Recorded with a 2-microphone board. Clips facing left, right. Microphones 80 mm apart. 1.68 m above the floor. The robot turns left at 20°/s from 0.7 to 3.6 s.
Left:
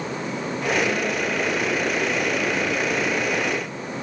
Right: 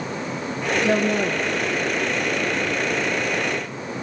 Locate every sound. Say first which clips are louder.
0.8 s a woman speaking: right 4 dB; 75° right (ahead or behind), 1.4 m